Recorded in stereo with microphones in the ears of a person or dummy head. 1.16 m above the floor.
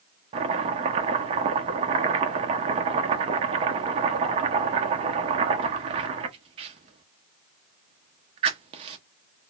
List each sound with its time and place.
0.3 s chopping: 30° right (ahead or behind), 0.5 m